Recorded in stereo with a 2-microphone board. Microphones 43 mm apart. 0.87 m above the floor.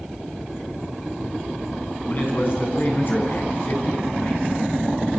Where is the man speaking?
45° left (ahead or behind), 7.5 m; by 4.4 s 55° left (ahead or behind), 7 m.